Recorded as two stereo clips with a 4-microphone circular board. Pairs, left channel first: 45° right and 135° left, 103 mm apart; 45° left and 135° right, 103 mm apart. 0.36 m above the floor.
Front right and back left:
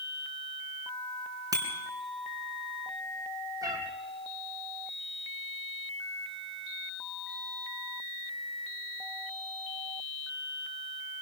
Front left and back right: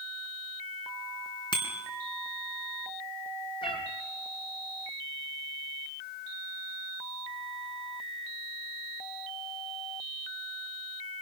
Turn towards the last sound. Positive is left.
turn(degrees=80)